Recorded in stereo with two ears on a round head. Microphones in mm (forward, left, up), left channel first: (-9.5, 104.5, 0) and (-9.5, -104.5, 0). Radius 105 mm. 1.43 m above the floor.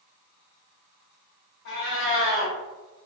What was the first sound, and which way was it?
A cat meowing, 50° left (ahead or behind).